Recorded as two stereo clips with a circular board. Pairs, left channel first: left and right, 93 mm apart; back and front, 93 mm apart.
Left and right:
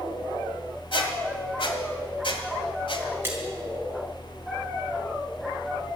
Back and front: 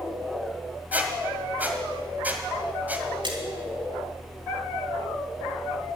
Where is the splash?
25° right, 3.5 m.